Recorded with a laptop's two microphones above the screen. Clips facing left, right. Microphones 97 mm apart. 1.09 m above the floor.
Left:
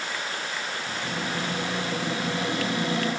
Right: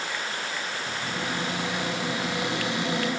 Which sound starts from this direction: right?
A cupboard door, at 0.9 s.